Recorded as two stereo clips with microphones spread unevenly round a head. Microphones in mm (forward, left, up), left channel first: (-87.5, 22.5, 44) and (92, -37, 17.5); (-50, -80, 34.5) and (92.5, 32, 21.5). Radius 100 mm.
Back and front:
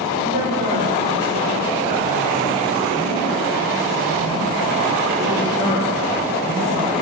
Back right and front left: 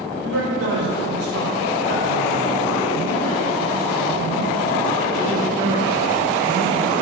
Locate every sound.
0.2 s a man speaking: 25° left, 4.5 m; by 6.9 s 45° right, 5.5 m